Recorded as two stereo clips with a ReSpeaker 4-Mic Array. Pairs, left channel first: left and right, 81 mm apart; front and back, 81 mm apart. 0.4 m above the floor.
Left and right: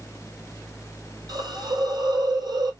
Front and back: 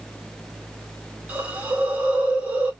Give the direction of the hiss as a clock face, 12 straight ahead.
4 o'clock.